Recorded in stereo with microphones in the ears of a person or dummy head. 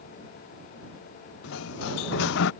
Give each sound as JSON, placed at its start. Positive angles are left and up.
{"t": 1.4, "sound": "a sliding door", "side_deg": 70}